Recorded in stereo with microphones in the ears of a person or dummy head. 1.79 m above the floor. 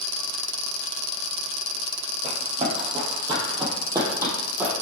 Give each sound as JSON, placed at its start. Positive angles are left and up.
{"t": 2.2, "sound": "running footsteps", "side_deg": -40, "distance_m": 4.0}